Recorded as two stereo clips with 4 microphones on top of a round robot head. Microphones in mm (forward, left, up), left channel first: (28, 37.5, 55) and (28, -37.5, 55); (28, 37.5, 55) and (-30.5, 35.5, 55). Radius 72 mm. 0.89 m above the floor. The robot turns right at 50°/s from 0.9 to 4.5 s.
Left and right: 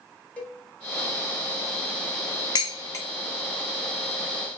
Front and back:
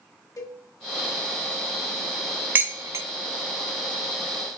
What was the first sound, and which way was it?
A cowbell, 20° left.